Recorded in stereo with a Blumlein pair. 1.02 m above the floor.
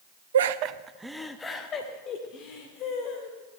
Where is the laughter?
65° right, 0.9 m; by 3.4 s 40° left, 3.5 m.